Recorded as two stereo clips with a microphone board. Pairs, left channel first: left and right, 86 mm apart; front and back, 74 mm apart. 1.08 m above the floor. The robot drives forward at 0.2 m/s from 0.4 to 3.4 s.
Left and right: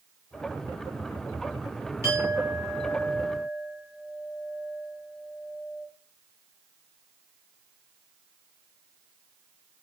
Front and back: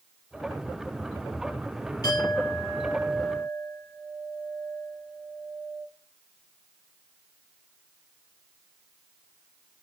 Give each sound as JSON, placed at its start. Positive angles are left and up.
{"t": 2.0, "sound": "a clink", "azimuth_deg": -30, "distance_m": 3.0}